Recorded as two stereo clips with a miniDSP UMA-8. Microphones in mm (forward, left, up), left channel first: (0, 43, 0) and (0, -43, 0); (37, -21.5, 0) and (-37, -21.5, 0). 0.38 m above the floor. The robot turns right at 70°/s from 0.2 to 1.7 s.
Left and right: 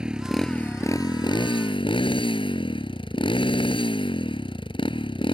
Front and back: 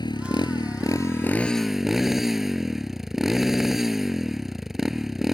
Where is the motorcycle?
10° right; by 5.4 s 95° left.